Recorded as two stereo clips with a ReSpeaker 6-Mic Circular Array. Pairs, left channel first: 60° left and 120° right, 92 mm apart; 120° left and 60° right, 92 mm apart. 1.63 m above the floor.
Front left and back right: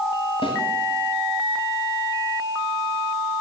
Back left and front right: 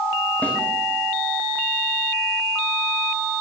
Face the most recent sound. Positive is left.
turn(degrees=50)